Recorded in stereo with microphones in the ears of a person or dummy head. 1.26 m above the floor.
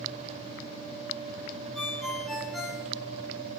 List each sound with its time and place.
1.8 s a ringtone: centre (ahead or behind), 4 m